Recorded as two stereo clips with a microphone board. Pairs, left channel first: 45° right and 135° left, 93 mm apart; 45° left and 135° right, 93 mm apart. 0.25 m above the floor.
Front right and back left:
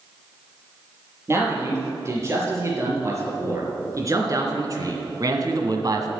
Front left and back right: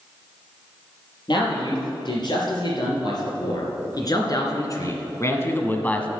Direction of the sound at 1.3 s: 75° left.